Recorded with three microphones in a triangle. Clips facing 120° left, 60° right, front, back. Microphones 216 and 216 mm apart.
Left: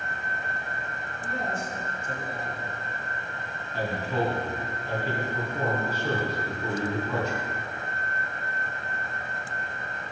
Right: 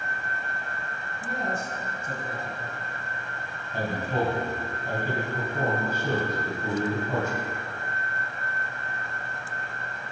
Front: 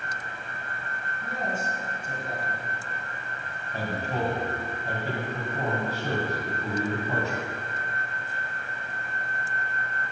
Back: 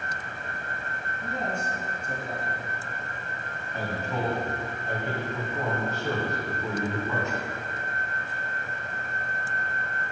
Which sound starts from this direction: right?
A man speaking, at 1.2 s.